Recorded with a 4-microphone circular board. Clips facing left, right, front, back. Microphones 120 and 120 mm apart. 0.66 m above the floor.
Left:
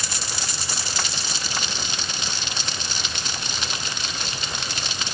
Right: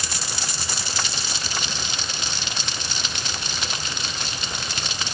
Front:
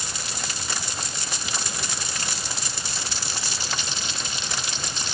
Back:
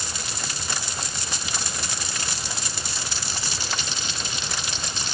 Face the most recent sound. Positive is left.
No sound to turn to.